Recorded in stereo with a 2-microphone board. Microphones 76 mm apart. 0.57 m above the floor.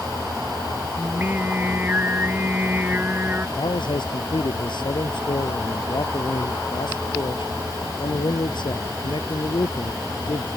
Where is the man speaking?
85° left.